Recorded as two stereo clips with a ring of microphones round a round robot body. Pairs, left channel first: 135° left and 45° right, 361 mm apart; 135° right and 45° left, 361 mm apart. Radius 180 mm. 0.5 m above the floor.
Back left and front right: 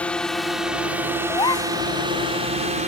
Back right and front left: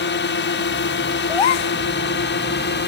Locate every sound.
0.0 s a drone: 140° right; by 2.9 s 100° right
1.3 s a gasp: 145° right